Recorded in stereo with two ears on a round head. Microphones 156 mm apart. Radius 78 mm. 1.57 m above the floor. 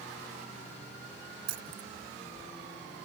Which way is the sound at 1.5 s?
65° right (ahead or behind).